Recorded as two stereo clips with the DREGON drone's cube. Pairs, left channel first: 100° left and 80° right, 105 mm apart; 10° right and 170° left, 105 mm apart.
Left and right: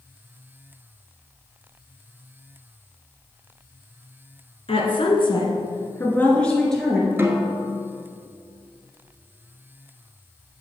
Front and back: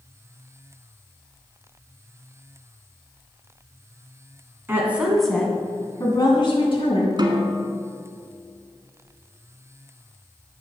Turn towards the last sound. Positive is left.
turn(degrees=-145)